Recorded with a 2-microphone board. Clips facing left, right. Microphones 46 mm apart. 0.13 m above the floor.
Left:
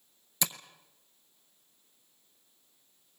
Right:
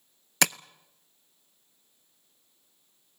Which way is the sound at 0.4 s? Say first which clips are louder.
Right 10 dB; 70° right (ahead or behind).